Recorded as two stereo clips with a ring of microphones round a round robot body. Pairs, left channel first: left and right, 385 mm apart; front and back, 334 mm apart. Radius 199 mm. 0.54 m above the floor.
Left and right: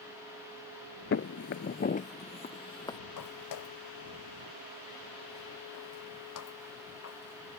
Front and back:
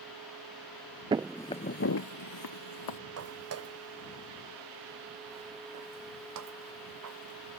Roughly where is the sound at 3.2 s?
Behind left.